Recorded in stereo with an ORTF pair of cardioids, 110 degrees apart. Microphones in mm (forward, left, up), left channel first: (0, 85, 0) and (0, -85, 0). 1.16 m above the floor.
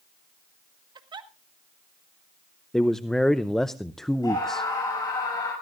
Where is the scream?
25° left, 7 m.